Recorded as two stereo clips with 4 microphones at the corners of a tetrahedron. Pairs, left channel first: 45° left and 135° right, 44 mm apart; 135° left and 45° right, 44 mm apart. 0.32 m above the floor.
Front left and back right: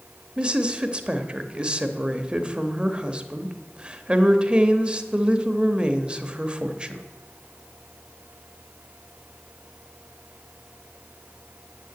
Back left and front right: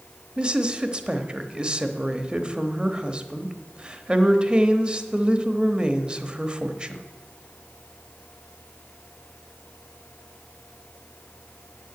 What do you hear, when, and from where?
0.4 s a woman speaking: 90° right, 1.0 m